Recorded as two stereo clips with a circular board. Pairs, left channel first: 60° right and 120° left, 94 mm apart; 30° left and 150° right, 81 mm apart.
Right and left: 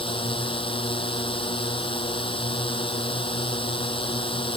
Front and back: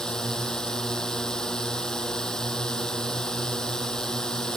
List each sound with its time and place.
0.0 s a drone: 50° right